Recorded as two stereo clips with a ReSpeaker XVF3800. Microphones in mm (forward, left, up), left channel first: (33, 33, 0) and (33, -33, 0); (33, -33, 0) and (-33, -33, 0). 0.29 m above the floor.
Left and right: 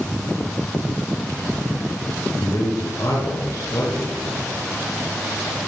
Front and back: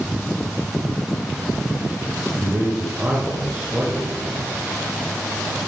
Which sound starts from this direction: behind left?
A man speaking, at 2.4 s.